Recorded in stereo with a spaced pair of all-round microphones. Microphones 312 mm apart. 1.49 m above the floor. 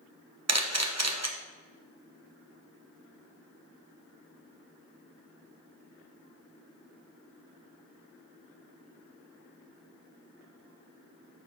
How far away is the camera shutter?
About 1.2 m.